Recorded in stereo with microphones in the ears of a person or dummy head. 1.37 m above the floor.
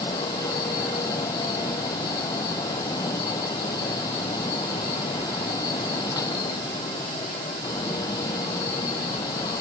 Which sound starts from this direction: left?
A fan, at 0.0 s.